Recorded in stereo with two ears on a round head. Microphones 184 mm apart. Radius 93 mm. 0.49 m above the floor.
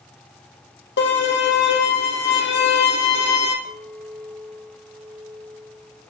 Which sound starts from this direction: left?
A violin, at 1.0 s.